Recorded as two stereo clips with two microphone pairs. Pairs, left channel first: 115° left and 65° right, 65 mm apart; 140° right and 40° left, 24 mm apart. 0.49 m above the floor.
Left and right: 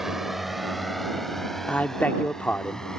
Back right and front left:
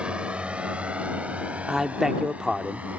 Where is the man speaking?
85° left.